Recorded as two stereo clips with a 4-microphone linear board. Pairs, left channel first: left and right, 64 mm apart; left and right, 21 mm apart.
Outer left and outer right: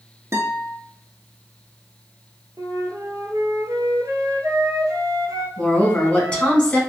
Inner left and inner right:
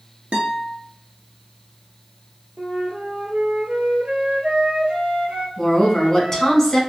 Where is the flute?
75° right (ahead or behind), 0.8 m.